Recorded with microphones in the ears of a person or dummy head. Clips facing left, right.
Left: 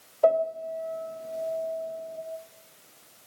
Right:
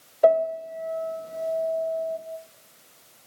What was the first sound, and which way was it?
A piano, 20° right (ahead or behind).